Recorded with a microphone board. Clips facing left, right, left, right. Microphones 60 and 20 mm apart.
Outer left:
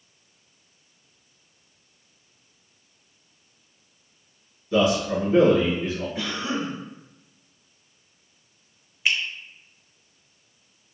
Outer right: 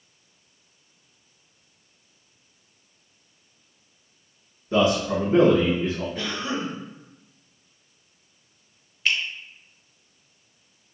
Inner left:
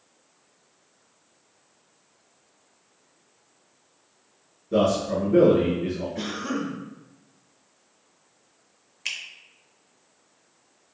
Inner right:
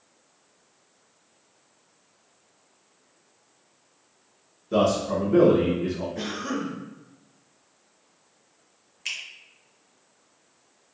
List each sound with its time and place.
4.7 s a man speaking: 30° right (ahead or behind), 1.1 m
6.2 s a cough: 15° left (ahead or behind), 1.9 m
9.1 s a finger snap: 15° left (ahead or behind), 0.7 m